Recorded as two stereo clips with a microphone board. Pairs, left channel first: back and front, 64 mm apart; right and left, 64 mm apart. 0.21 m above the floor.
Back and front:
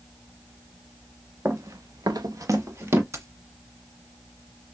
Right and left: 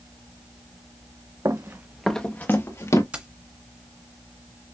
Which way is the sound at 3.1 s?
25° left.